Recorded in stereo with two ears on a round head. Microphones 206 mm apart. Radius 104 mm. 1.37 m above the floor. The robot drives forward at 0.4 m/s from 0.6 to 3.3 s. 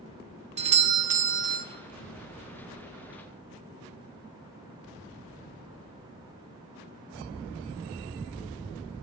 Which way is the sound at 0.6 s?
30° right (ahead or behind).